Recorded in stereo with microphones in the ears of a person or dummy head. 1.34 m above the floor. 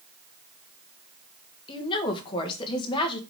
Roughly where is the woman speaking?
Left.